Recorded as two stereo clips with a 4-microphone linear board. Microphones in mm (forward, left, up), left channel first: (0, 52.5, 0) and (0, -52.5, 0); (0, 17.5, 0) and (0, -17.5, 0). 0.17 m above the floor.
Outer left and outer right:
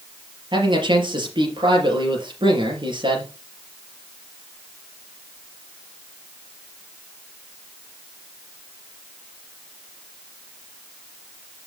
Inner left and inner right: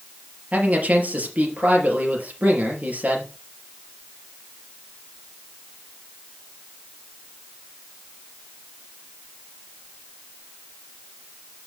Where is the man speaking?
50° right (ahead or behind), 4 m.